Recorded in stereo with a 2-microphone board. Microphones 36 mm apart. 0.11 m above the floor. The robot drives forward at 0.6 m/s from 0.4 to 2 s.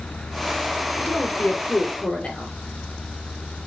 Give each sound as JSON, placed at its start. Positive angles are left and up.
{"t": 1.0, "sound": "a woman speaking", "side_deg": 25, "distance_m": 1.3}